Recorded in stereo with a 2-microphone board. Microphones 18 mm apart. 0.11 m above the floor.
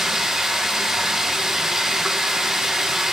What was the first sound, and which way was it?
Running water, 25° right (ahead or behind).